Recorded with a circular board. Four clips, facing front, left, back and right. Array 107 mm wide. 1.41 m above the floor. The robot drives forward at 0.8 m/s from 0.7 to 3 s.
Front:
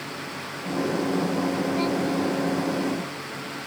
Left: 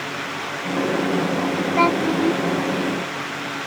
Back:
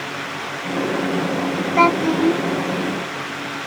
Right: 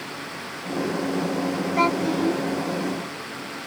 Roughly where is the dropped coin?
No dropped coin in this recording.